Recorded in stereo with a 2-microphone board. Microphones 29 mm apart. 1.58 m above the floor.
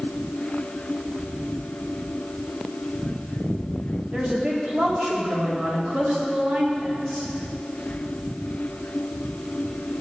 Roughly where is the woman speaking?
Right.